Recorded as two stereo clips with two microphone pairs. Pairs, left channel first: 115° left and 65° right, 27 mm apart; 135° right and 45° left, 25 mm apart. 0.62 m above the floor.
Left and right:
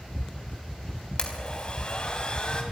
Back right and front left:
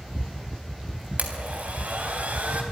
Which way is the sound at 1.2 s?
65° left.